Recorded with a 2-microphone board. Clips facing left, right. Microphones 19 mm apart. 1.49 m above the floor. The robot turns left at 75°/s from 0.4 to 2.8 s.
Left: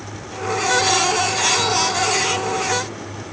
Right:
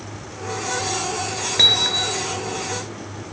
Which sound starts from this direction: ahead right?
Hammering, at 1.6 s.